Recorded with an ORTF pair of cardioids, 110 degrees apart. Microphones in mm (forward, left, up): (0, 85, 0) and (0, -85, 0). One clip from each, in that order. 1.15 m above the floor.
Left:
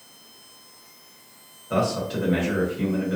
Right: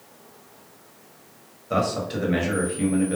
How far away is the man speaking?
About 1.2 m.